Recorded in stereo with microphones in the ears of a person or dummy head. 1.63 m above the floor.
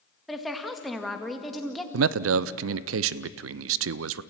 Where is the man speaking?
75° right (ahead or behind), 0.6 m.